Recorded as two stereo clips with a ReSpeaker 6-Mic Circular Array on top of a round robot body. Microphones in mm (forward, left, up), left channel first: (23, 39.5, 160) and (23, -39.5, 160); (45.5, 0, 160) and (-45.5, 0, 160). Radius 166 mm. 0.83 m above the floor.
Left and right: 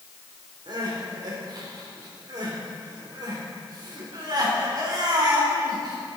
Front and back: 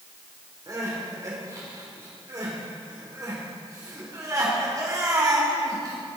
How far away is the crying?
About 4 m.